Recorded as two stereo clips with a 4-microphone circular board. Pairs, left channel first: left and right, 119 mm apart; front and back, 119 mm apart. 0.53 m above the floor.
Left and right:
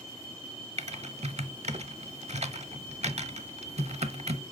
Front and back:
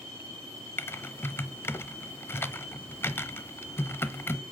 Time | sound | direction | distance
0.8 | typing on a keyboard | 70° right | 0.9 m